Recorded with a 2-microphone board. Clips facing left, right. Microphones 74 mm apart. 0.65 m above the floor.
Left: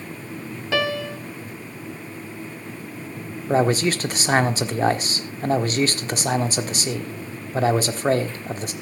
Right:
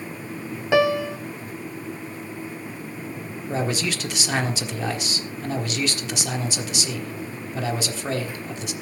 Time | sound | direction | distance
0.7 | a piano | 20° right (ahead or behind) | 1.1 m
3.5 | a man speaking | 40° left (ahead or behind) | 1.3 m